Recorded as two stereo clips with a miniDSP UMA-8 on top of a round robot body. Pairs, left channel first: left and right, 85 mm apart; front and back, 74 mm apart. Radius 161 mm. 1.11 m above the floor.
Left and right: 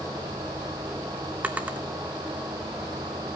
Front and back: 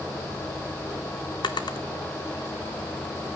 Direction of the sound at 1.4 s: 15° right.